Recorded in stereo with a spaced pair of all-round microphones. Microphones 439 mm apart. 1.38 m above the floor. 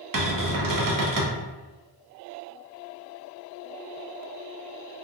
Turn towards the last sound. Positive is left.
turn(degrees=-50)  # may be behind; listen again after turning